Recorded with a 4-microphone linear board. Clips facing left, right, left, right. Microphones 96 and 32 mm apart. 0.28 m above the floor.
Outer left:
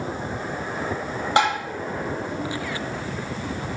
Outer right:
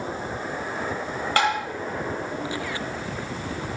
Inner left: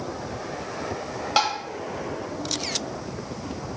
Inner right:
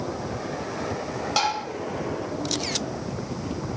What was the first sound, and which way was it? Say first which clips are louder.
Tapping: outer left 2 dB, inner left 2 dB; 20° left (ahead or behind).